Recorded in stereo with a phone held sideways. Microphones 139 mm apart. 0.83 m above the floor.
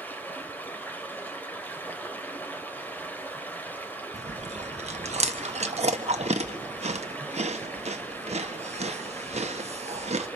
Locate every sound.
0.0 s running water: 15° left (ahead or behind), 2.5 m
4.1 s chewing: 50° right (ahead or behind), 1.2 m